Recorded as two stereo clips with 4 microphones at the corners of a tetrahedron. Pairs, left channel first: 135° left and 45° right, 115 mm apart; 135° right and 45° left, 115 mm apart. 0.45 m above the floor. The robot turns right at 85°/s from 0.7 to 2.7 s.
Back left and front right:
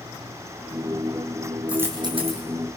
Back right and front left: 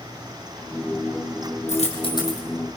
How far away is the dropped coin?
About 4.5 m.